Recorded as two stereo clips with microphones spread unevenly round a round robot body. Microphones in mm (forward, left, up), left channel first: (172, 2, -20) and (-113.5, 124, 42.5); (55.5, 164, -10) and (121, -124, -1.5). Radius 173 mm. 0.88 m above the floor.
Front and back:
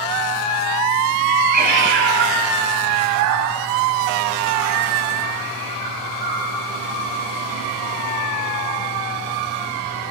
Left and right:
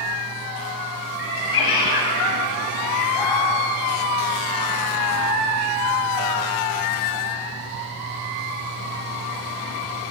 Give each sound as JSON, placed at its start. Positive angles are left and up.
{"t": 1.2, "sound": "a cat meowing", "azimuth_deg": 90, "distance_m": 3.0}